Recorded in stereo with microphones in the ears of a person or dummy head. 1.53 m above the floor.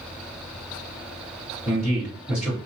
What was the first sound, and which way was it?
A man speaking, 5° right (ahead or behind).